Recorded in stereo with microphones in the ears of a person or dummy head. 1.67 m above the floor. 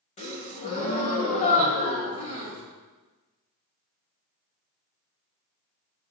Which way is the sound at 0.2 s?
30° left (ahead or behind).